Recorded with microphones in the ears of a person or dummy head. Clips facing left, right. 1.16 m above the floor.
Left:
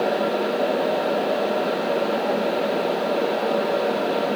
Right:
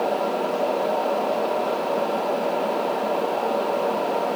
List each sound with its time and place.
Only background noise.